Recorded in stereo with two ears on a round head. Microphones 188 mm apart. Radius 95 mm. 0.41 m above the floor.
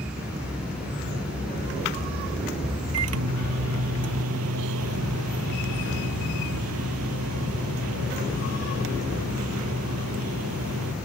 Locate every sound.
2.9 s a microwave: 85° right